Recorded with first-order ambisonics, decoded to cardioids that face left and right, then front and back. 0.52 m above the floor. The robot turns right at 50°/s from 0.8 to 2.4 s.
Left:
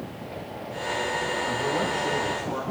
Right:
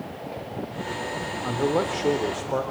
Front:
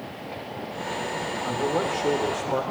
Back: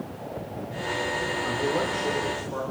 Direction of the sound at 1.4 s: 95° right.